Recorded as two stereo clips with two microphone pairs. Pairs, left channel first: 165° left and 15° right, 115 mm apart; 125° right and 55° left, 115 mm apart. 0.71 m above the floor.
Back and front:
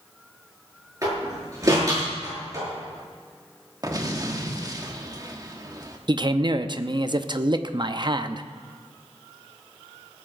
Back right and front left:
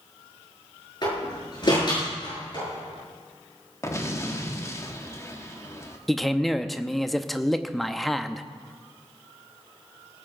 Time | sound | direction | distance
1.0 | a door slam | 75° right | 7 m
3.8 | an explosion | 65° right | 1.3 m
6.1 | a man speaking | 35° right | 0.6 m